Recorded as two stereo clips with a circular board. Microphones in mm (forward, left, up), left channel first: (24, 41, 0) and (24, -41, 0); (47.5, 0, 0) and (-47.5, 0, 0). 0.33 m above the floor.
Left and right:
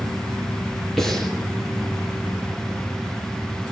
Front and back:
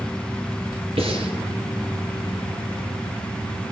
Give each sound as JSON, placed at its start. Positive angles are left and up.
{"t": 1.0, "sound": "breathing", "azimuth_deg": 175, "distance_m": 5.0}